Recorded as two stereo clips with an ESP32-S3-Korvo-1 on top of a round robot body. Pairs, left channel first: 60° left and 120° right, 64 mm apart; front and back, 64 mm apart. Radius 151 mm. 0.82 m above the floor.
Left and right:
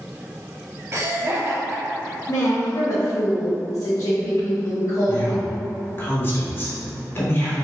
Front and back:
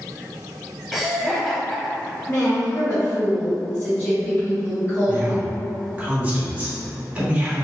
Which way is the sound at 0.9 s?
80° right.